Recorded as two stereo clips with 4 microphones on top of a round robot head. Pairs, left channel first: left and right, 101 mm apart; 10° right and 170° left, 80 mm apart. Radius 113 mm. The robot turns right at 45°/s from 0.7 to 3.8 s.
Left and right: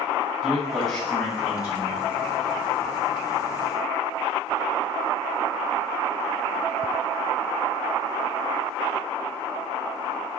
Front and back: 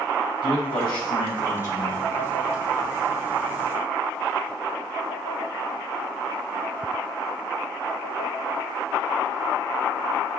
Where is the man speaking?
5° right, 1.6 m; by 2.1 s 55° left, 1.6 m.